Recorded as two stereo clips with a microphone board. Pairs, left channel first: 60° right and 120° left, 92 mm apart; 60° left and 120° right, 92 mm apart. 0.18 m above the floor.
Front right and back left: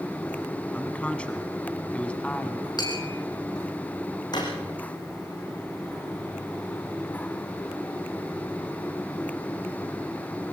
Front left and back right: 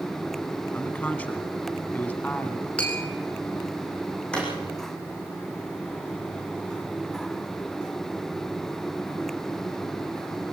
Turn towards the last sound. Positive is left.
turn(degrees=-20)